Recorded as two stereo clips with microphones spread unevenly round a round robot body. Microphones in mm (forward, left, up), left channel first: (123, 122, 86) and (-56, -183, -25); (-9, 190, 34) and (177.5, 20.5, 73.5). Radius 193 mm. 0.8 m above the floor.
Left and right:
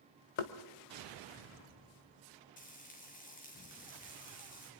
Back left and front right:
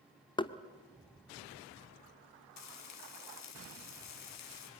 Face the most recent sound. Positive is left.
turn(degrees=130)